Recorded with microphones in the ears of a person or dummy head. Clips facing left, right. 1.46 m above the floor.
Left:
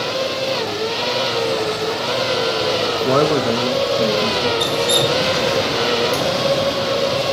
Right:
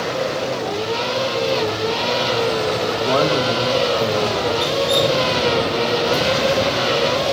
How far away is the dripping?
About 8.5 m.